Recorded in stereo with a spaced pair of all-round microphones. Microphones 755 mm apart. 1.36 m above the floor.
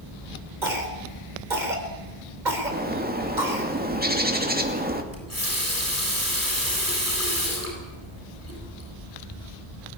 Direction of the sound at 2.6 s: 10° right (ahead or behind).